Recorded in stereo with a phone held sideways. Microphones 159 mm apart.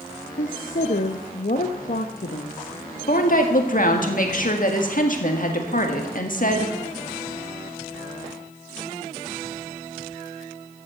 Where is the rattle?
I don't hear a rattle.